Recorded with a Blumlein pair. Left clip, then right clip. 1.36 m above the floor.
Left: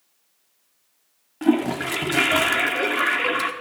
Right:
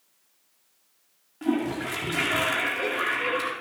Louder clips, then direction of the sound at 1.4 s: Left 6 dB; 25° left.